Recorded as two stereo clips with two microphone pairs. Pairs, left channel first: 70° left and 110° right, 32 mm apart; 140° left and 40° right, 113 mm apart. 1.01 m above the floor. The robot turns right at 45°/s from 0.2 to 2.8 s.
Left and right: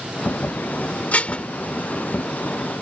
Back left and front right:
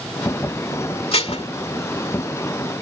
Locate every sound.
1.1 s dishes clattering: 110° left; by 1.5 s 125° left